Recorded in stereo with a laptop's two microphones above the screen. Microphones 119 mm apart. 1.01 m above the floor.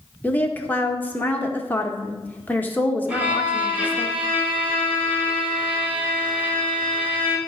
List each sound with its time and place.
0.2 s a woman speaking: 15° left (ahead or behind), 1.3 m
3.1 s a violin: 15° right (ahead or behind), 2.0 m